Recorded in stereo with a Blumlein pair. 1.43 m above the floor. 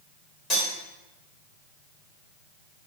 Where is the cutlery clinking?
30° left, 1.9 m.